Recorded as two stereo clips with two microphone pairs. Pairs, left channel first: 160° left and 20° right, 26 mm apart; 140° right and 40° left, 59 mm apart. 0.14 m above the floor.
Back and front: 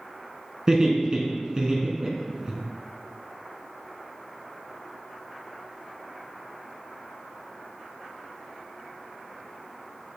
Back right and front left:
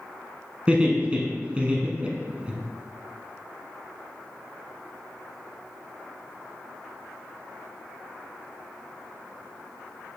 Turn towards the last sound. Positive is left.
turn(degrees=-5)